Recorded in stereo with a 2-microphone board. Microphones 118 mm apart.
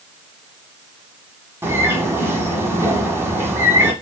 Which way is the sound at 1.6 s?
20° right (ahead or behind).